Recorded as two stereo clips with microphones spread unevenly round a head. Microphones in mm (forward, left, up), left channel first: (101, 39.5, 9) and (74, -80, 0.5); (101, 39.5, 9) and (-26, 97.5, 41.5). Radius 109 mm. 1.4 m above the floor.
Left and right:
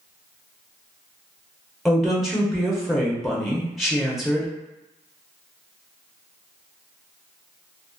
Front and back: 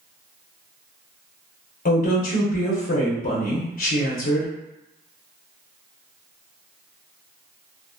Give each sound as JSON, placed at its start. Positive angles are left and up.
{"t": 1.9, "sound": "a woman speaking", "azimuth_deg": -15, "distance_m": 0.8}